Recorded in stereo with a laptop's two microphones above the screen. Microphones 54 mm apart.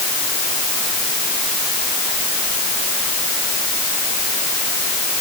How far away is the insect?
No insect in this recording.